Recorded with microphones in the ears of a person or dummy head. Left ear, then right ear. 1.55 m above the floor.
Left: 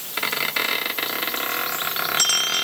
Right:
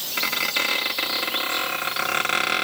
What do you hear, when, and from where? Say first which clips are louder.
0.2 s a squeak: even; centre (ahead or behind), 1.7 m